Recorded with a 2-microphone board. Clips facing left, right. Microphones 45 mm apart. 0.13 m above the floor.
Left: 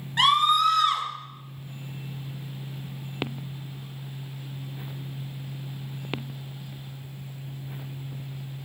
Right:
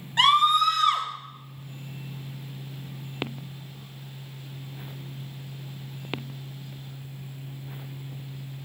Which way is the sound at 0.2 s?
5° left (ahead or behind).